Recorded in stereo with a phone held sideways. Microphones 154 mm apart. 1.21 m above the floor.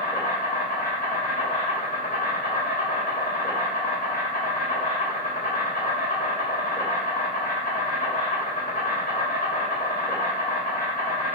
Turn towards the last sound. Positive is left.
turn(degrees=60)  # may be behind; listen again after turning